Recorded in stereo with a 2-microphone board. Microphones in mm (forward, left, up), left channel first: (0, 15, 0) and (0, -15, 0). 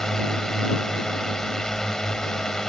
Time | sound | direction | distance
0.0 | a drone | 20° left (ahead or behind) | ?